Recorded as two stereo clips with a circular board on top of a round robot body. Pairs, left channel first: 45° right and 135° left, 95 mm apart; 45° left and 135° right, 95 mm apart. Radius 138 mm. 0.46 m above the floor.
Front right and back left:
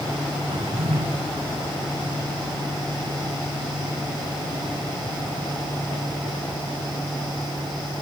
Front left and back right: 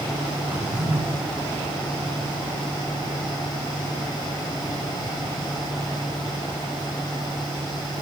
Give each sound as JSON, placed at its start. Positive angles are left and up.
{"t": 0.5, "sound": "a drawer", "azimuth_deg": 150, "distance_m": 4.0}